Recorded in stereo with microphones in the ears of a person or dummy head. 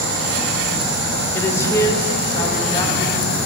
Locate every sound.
1.4 s a woman speaking: 15° left (ahead or behind), 0.8 m